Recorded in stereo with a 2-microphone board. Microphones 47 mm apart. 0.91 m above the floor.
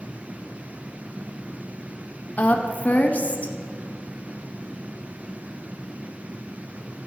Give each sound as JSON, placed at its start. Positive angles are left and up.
{"t": 2.4, "sound": "a woman speaking", "side_deg": 30, "distance_m": 0.8}